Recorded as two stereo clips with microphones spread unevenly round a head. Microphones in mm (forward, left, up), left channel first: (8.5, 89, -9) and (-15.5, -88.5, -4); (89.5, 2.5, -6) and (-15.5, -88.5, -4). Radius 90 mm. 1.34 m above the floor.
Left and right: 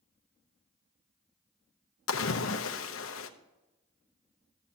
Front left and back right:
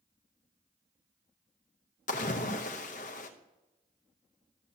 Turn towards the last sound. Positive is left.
turn(degrees=90)